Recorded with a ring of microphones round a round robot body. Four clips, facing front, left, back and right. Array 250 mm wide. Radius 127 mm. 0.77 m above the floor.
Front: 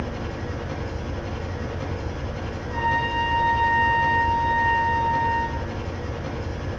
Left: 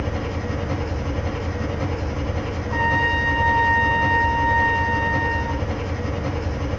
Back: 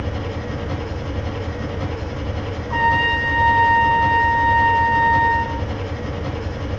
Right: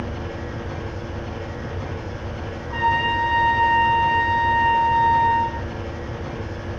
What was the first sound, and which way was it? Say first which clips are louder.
An engine running: left 3 dB, back 3 dB; 125° left.